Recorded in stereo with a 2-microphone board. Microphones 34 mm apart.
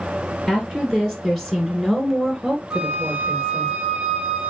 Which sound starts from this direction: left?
A woman speaking, at 0.5 s.